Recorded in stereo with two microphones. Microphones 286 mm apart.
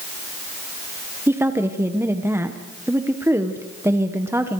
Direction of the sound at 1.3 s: 10° right (ahead or behind).